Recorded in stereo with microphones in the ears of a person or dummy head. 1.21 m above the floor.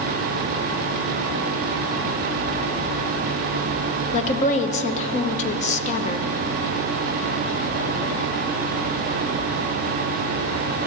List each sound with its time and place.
4.1 s a woman speaking: 35° left (ahead or behind), 1.1 m